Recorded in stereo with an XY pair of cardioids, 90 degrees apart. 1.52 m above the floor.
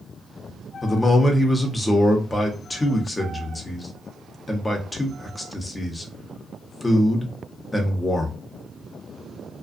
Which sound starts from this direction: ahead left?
A man speaking, at 0.8 s.